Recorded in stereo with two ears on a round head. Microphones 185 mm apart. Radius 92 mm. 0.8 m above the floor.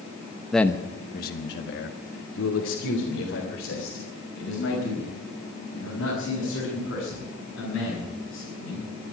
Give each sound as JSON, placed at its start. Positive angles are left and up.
{"t": 0.5, "sound": "a man speaking", "side_deg": 0, "distance_m": 0.8}